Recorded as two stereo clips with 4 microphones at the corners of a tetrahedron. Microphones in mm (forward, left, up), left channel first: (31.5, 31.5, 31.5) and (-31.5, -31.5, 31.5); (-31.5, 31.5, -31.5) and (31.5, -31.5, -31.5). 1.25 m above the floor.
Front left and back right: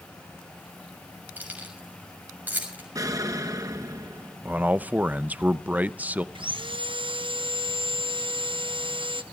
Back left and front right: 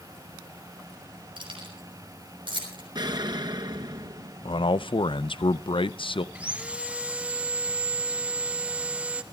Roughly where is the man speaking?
Behind left.